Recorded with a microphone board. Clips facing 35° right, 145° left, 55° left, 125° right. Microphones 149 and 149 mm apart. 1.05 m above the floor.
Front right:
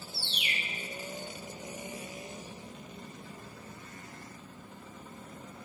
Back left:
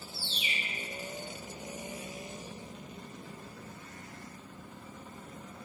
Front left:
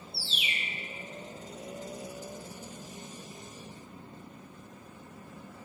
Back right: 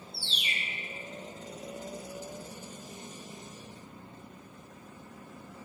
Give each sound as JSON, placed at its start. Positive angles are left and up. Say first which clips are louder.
{"t": 0.1, "sound": "a bird", "louder": "even, front left 1 dB", "azimuth_deg": -30, "distance_m": 0.6}